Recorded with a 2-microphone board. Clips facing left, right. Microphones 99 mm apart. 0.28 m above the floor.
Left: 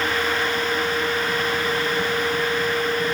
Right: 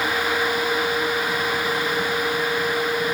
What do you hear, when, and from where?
Only background noise.